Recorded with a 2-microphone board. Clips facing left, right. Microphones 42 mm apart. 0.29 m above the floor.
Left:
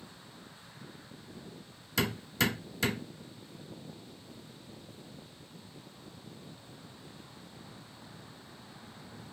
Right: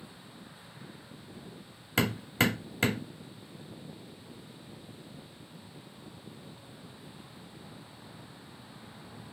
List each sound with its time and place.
2.0 s hammering: 45° right (ahead or behind), 1.2 m